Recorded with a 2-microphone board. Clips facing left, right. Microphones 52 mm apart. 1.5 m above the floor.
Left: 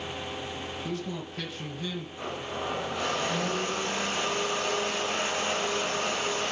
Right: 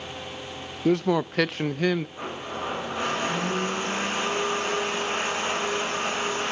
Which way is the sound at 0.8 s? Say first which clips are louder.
Right 17 dB; 70° right (ahead or behind).